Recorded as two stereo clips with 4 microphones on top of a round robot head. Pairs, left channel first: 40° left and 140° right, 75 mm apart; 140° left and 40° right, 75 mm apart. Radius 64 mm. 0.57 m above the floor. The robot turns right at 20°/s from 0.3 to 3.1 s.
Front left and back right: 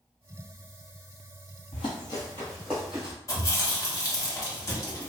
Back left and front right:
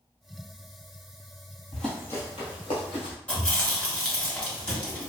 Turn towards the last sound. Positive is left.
turn(degrees=70)